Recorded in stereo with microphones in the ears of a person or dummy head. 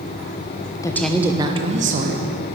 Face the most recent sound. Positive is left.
turn(degrees=-55)  # may be behind; listen again after turning